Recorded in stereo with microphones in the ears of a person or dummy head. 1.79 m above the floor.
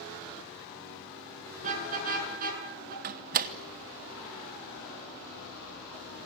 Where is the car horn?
40° right (ahead or behind), 8.5 m; by 2.9 s 50° right (ahead or behind), 8 m.